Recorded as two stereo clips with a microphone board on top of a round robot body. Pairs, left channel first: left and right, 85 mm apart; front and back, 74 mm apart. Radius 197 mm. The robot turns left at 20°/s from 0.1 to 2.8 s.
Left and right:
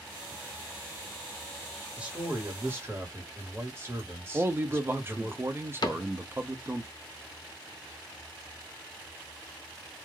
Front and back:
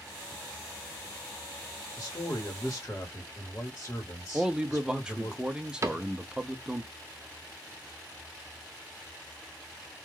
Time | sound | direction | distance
2.0 | a man speaking | 30° right | 1.5 m
4.3 | a man speaking | 110° right | 0.8 m
5.8 | a cupboard door | 130° left | 0.6 m